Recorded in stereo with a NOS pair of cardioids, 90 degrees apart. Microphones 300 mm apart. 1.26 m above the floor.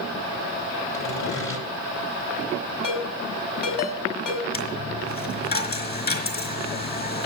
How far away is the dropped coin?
About 4 m.